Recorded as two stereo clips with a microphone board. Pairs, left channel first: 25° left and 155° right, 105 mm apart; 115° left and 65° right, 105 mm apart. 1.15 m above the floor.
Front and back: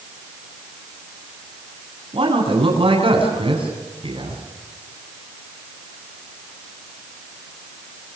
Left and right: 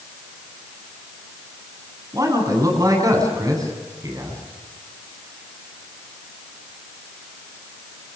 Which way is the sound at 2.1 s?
125° right.